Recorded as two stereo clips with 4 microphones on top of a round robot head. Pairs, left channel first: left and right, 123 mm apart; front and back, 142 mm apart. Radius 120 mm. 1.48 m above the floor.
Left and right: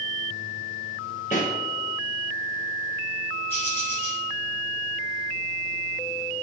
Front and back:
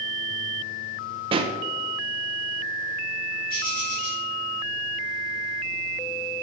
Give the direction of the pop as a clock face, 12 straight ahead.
7 o'clock.